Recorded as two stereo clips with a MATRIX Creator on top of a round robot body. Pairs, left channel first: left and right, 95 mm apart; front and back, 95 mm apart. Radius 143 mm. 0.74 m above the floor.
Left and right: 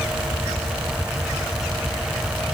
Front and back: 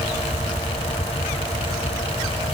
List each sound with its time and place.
Only background noise.